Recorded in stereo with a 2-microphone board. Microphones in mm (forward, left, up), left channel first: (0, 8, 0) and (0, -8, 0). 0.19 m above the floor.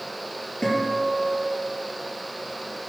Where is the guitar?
50° left (ahead or behind), 3.5 m.